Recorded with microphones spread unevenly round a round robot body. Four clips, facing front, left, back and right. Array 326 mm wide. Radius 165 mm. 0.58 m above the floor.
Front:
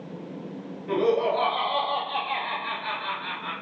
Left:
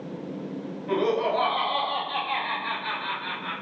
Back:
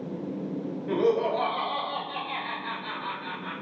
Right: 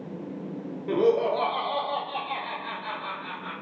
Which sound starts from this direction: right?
Laughter, at 0.9 s.